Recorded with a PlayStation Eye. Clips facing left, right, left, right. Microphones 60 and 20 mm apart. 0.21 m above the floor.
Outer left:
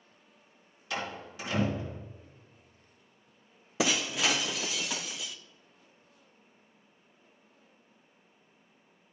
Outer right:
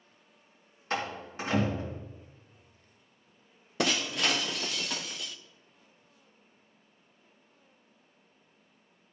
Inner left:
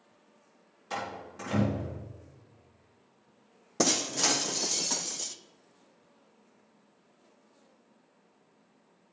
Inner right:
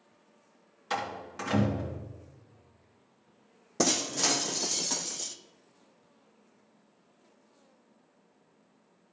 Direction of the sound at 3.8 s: 5° left (ahead or behind).